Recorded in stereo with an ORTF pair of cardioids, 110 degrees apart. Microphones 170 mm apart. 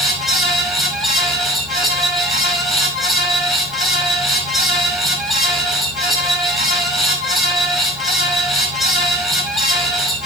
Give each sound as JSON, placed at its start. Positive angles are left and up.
{"t": 0.0, "sound": "a fan", "azimuth_deg": 0, "distance_m": 5.5}